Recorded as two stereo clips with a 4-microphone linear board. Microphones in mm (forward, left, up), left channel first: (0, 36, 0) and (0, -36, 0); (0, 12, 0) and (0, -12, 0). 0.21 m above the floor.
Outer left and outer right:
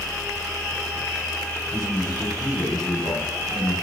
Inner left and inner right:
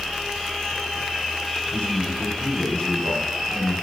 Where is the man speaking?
75° left (ahead or behind), 8.5 m.